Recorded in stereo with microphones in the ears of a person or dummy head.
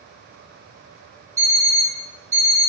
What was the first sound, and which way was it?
An alarm clock, 15° right (ahead or behind).